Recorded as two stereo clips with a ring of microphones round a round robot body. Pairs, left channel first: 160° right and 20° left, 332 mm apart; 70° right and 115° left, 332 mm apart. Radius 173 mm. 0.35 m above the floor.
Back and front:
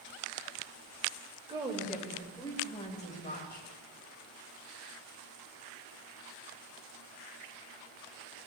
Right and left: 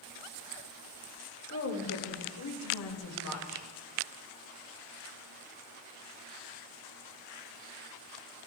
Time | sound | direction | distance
1.5 | a woman speaking | 45° right | 1.6 m